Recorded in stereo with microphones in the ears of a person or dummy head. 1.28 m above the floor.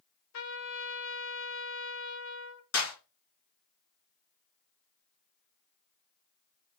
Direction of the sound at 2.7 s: 80° left.